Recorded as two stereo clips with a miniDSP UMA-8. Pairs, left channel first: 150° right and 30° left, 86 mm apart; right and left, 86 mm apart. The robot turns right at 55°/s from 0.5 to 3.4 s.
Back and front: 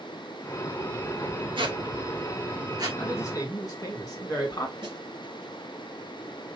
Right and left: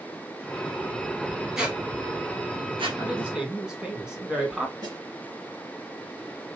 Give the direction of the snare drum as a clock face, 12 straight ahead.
10 o'clock.